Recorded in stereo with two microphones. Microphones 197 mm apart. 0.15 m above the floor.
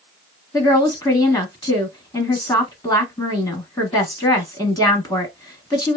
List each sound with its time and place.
0.5 s a woman speaking: 20° left (ahead or behind), 1.0 m